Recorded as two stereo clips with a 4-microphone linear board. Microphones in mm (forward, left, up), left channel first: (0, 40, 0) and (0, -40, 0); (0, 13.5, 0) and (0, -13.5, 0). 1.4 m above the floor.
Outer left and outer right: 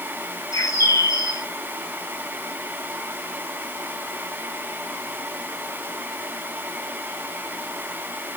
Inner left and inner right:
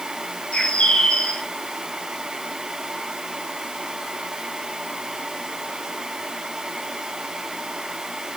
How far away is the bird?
About 2 m.